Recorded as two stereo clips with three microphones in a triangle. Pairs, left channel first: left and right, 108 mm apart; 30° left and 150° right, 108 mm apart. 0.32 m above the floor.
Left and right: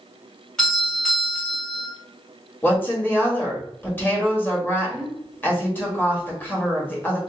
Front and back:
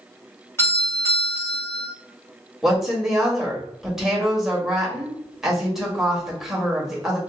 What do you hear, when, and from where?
0.6 s a doorbell: 15° left, 2.0 m
2.6 s a woman speaking: 130° left, 1.0 m